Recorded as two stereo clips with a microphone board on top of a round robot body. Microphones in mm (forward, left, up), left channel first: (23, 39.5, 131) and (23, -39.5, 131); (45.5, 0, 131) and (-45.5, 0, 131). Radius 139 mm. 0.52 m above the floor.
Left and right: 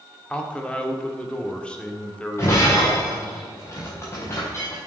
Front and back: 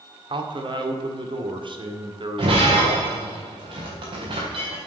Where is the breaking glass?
150° left, 4.5 m.